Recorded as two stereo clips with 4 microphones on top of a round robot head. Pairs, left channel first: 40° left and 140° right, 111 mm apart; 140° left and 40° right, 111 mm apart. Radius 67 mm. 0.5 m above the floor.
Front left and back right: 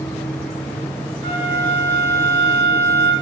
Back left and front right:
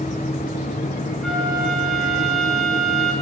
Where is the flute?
135° right, 8.5 m.